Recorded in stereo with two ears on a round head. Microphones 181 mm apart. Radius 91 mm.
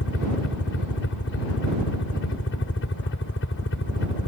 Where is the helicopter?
60° left (ahead or behind).